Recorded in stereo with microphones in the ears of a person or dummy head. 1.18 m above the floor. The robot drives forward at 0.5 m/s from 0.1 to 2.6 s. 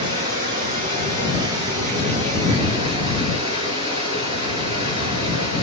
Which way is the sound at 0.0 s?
45° right (ahead or behind).